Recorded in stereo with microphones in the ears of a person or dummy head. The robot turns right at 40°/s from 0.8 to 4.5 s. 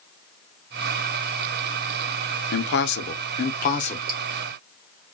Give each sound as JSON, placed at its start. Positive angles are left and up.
{"t": 2.5, "sound": "a man speaking", "azimuth_deg": 80, "distance_m": 0.6}
{"t": 4.1, "sound": "dripping", "side_deg": -30, "distance_m": 1.2}